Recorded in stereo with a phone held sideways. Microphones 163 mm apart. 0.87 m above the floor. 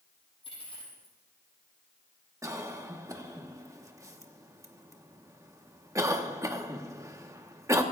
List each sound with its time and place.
0.4 s a dropped coin: 35° left (ahead or behind), 6 m
2.4 s a cough: 20° right (ahead or behind), 1.2 m